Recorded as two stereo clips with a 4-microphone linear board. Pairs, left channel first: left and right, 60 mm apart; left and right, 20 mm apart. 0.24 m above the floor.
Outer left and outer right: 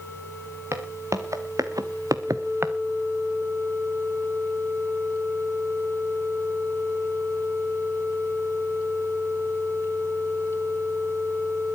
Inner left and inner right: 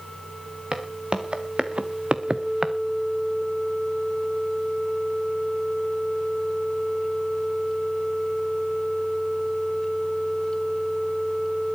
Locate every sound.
0.7 s footsteps: 50° right (ahead or behind), 3 m; by 2.8 s 35° right (ahead or behind), 1.2 m